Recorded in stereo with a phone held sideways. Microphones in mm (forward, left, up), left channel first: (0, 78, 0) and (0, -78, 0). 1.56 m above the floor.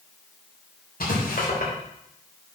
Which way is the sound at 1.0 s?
75° left (ahead or behind).